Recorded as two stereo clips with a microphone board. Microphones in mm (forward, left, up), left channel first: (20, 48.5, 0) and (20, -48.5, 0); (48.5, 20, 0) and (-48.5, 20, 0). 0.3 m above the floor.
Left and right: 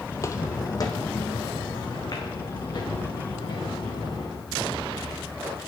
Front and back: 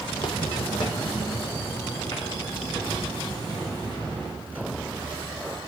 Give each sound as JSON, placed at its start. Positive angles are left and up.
{"t": 0.1, "sound": "footsteps", "azimuth_deg": 30, "distance_m": 0.6}